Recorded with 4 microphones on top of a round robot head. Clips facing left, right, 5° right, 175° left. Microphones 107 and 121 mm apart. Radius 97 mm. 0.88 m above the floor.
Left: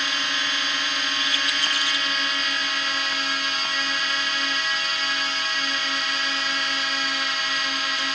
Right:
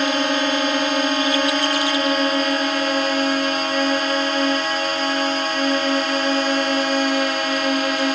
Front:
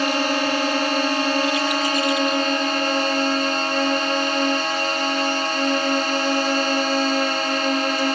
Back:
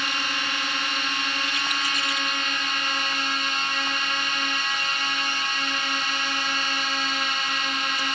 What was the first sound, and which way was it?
A drone, 45° right.